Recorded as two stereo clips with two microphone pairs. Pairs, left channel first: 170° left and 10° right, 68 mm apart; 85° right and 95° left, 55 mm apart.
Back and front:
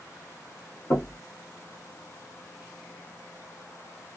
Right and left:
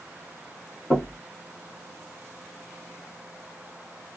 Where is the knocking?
150° right, 2.5 m.